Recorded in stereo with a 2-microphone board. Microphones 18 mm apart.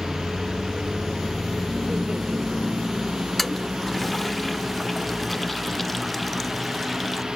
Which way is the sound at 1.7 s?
65° right (ahead or behind).